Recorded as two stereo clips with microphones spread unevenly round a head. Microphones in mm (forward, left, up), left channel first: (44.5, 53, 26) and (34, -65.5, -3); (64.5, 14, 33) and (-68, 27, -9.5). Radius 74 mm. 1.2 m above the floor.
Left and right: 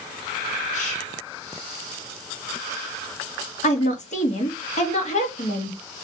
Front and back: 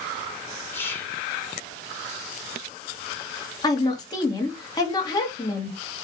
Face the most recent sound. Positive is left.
turn(degrees=60)